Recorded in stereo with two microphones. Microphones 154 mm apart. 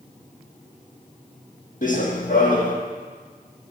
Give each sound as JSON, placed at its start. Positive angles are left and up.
{"t": 1.8, "sound": "running footsteps", "side_deg": 60, "distance_m": 1.4}